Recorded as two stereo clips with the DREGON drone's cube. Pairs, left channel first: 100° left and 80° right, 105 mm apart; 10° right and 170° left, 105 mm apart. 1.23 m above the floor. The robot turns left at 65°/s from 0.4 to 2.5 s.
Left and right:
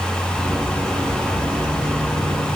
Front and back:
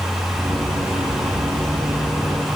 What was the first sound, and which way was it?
Only background noise.